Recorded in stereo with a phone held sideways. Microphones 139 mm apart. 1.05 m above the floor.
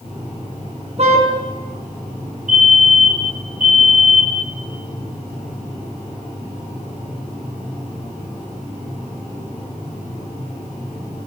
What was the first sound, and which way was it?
A car horn, 50° right (ahead or behind).